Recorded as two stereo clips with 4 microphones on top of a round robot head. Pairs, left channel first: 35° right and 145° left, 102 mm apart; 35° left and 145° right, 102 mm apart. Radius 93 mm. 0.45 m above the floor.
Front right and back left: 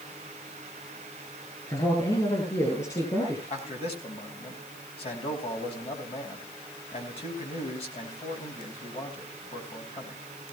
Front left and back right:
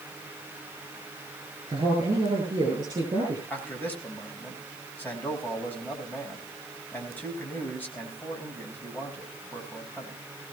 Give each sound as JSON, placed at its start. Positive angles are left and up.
{"t": 1.7, "sound": "a man speaking", "azimuth_deg": -90, "distance_m": 8.5}
{"t": 3.5, "sound": "a man speaking", "azimuth_deg": -35, "distance_m": 4.5}